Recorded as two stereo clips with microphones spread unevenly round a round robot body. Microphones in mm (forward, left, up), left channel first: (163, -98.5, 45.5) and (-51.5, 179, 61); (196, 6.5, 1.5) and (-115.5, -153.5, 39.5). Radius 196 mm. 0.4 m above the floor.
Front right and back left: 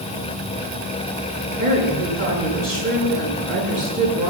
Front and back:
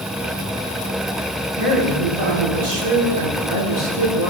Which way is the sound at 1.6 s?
140° right.